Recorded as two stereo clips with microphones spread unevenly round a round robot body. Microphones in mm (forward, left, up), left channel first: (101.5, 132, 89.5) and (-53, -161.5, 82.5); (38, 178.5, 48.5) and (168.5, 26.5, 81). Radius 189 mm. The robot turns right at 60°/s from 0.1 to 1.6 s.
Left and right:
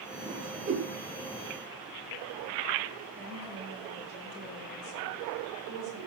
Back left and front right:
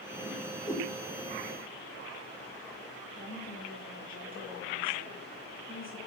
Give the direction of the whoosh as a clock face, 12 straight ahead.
7 o'clock.